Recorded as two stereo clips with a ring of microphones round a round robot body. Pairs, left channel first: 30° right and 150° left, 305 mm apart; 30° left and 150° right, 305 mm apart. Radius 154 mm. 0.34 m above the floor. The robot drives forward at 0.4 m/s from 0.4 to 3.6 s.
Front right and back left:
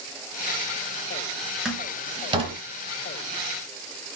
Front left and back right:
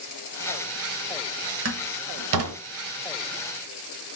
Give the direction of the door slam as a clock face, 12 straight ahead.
4 o'clock.